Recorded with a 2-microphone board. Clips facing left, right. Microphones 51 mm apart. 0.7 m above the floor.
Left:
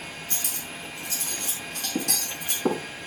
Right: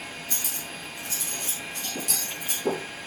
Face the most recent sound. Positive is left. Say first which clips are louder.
# even
turn(degrees=55)  # may be behind; listen again after turning